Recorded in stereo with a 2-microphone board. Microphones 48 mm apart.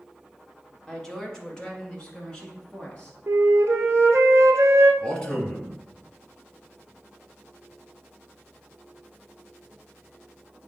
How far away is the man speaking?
About 1.2 m.